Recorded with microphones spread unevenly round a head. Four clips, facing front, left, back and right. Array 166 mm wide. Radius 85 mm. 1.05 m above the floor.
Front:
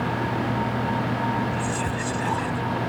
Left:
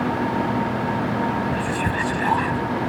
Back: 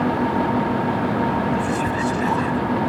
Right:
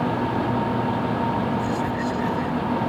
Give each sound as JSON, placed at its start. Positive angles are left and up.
{"t": 1.5, "sound": "whispering", "azimuth_deg": 100}